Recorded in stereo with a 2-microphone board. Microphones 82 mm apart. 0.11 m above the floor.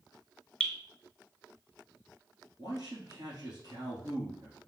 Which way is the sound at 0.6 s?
10° left (ahead or behind).